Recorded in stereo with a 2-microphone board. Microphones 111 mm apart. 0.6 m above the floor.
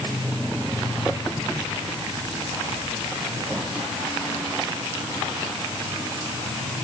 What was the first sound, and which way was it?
Only background noise.